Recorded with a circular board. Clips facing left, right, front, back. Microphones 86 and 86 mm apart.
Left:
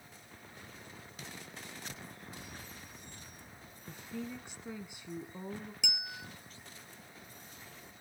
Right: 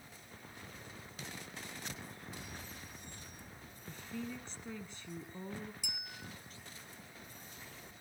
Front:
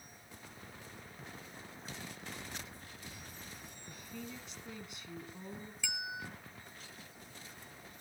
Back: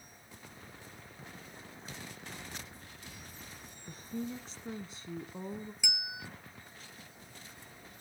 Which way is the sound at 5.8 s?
105° left.